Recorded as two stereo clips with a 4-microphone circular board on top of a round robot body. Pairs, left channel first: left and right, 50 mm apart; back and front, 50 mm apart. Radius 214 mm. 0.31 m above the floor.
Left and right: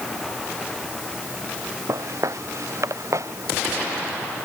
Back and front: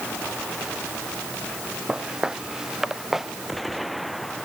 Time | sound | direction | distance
1.9 | footsteps | 80° right | ?